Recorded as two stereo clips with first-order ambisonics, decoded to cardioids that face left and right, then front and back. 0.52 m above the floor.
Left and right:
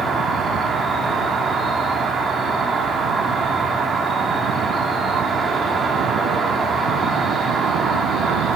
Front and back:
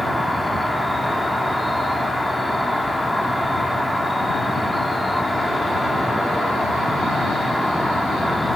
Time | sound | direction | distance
0.0 | an insect | 80° right | 1.5 m